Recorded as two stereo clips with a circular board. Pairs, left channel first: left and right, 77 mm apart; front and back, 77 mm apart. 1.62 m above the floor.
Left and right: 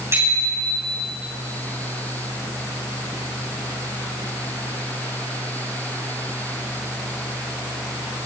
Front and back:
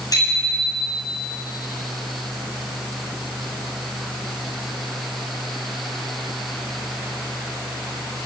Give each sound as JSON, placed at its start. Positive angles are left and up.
{"t": 0.1, "sound": "a bicycle bell", "azimuth_deg": -35, "distance_m": 7.5}